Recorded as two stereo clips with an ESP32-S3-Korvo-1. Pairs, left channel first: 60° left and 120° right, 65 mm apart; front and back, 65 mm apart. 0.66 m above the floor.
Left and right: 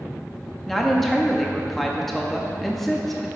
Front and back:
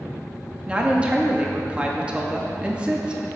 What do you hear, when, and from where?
0.7 s a woman speaking: 140° left, 0.8 m